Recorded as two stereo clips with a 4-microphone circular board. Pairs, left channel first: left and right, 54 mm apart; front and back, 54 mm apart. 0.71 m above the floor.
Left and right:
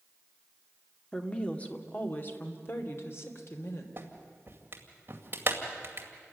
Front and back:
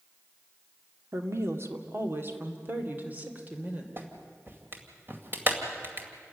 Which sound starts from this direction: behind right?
A clap, at 4.0 s.